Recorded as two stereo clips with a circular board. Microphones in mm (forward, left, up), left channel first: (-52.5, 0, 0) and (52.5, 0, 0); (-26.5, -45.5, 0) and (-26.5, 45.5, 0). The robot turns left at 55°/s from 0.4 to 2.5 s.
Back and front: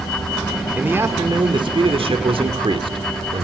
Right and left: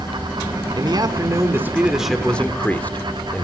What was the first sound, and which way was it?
A man speaking, 75° left.